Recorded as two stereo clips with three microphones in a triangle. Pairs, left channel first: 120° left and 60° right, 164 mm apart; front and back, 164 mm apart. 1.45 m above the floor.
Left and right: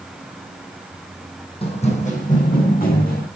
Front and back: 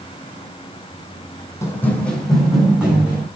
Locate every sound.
1.6 s running footsteps: 70° left, 3 m; by 3.3 s 100° left, 5 m